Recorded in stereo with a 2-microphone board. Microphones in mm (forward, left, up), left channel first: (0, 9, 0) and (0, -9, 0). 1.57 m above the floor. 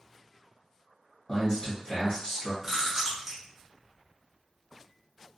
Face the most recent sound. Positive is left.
turn(degrees=-25)  # may be behind; listen again after turning